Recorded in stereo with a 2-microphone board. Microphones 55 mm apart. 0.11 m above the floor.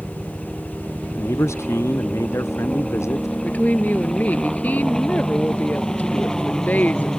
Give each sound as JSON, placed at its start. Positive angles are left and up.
{"t": 0.0, "sound": "a helicopter", "side_deg": 10}
{"t": 1.1, "sound": "a man speaking", "side_deg": 50}
{"t": 3.4, "sound": "a woman speaking", "side_deg": 25}